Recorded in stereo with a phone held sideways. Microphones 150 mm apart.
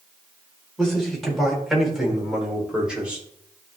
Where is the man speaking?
Centre (ahead or behind), 4.5 m; by 3.2 s 10° right (ahead or behind), 3 m.